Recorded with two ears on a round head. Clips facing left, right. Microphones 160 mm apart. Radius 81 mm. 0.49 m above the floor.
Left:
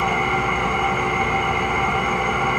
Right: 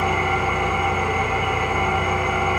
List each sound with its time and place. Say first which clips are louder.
0.0 s an engine running: even; 60° left (ahead or behind), 0.8 m